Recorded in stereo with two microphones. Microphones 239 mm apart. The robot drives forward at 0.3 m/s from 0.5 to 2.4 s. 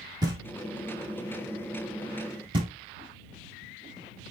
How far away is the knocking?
About 0.9 m.